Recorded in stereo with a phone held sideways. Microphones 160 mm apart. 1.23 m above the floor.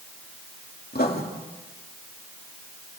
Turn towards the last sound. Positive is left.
turn(degrees=75)  # may be behind; listen again after turning